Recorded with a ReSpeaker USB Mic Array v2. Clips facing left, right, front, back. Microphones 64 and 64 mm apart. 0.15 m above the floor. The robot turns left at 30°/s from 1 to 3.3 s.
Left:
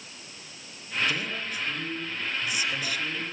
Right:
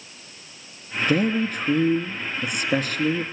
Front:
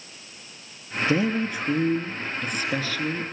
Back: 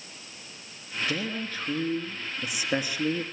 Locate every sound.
1.1 s a man speaking: 60° right, 2 m; by 3.2 s 120° right, 2 m